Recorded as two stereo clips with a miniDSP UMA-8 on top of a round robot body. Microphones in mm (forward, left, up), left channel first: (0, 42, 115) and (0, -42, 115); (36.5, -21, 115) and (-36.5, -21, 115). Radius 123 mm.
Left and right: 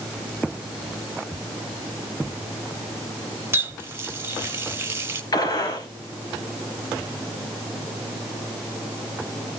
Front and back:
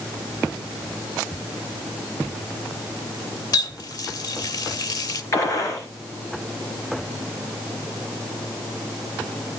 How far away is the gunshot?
About 4.5 m.